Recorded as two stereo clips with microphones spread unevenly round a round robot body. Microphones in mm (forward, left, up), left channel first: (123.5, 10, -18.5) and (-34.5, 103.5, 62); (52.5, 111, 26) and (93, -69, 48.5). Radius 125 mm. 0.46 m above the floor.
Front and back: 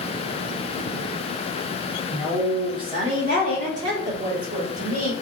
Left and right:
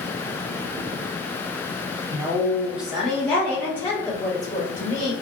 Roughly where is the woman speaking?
Ahead.